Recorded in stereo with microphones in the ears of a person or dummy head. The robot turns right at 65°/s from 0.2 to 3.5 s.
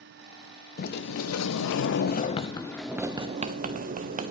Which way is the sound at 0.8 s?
45° left.